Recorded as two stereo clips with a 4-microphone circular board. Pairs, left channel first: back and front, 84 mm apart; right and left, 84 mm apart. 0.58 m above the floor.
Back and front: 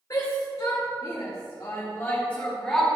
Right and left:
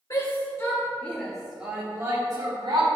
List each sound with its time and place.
0.1 s a shout: 135° right, 2.5 m; by 2.9 s 95° left, 2 m